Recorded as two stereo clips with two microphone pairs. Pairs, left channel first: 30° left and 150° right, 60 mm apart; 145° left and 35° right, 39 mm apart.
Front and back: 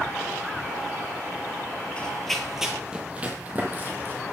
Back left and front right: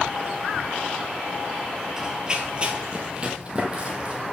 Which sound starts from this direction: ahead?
Running footsteps, at 2.0 s.